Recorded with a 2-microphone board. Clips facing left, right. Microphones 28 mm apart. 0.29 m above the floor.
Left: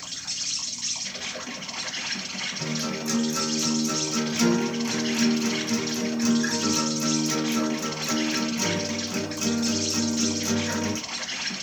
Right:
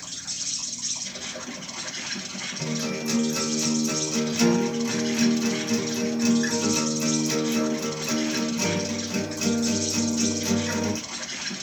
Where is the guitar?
25° right (ahead or behind), 1.5 m.